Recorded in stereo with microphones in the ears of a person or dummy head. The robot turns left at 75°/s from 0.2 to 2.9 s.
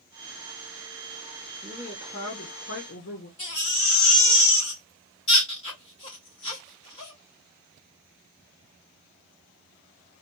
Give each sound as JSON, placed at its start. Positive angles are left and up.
{"t": 1.6, "sound": "a woman speaking", "azimuth_deg": -175, "distance_m": 0.9}
{"t": 3.4, "sound": "a baby crying", "side_deg": 35, "distance_m": 1.6}